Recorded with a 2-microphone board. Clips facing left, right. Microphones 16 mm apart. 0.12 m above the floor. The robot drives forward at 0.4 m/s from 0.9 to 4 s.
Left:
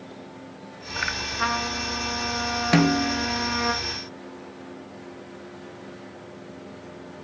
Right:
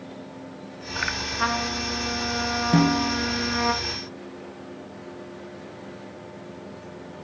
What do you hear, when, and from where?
1.4 s a trumpet: centre (ahead or behind), 1.3 m
2.7 s a snare drum: 45° left (ahead or behind), 1.5 m; by 3.3 s 40° left (ahead or behind), 1.6 m